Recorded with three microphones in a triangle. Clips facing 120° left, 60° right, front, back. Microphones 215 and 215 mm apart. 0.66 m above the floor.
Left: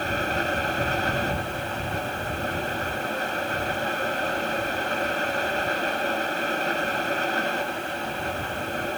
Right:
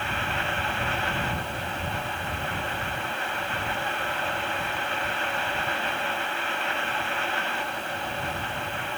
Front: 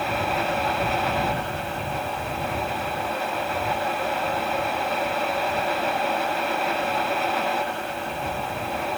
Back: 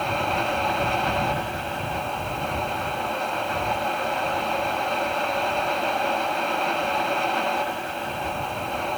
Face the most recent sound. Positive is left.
No sound to turn to.